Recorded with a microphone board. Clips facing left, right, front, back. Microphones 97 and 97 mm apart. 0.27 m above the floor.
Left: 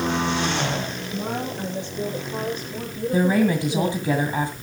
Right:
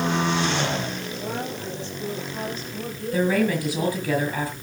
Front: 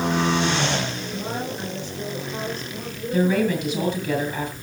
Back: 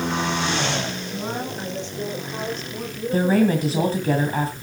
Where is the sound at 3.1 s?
145° left, 2 m.